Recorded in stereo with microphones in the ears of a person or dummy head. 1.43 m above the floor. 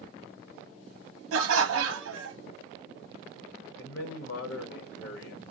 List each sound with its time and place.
1.3 s laughter: 75° right (ahead or behind), 0.7 m
3.8 s a man speaking: 65° left (ahead or behind), 1.0 m